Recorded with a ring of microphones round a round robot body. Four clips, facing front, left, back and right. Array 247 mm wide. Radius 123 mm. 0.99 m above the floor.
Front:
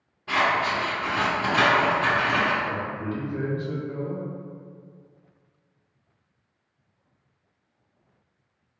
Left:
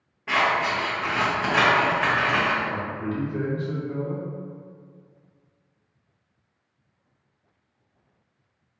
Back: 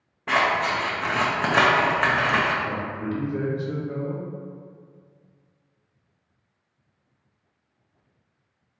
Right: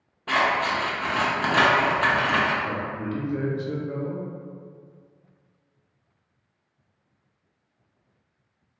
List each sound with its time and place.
0.3 s scissors: 165° right, 0.7 m
2.6 s a man speaking: 120° right, 1.1 m